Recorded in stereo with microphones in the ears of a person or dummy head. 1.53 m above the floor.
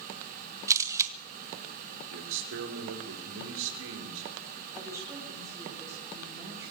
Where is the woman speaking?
15° right (ahead or behind), 5 m.